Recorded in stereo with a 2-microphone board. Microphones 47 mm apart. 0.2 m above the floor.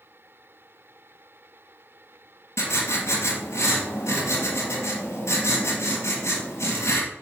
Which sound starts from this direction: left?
Writing, at 2.6 s.